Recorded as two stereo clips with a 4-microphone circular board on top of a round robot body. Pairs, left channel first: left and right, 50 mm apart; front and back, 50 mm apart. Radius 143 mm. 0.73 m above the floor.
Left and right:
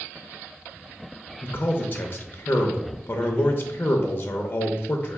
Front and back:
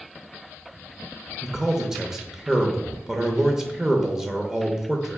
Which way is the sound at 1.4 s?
110° left.